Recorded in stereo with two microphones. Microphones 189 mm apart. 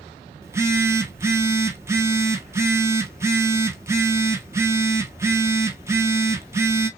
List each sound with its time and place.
0.4 s a phone buzzing: 15° right (ahead or behind), 0.7 m